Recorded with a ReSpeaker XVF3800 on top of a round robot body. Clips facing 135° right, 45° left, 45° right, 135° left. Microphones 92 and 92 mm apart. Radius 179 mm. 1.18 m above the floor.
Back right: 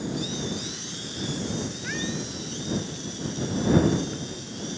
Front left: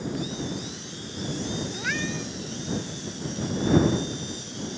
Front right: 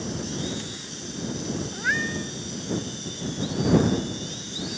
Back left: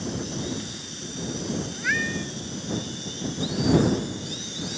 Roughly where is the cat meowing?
Ahead.